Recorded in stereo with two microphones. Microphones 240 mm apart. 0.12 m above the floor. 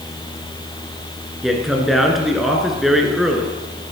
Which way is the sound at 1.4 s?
Centre (ahead or behind).